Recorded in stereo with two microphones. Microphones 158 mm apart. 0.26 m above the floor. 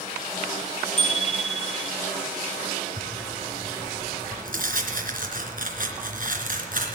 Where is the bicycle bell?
50° left (ahead or behind), 2.5 m.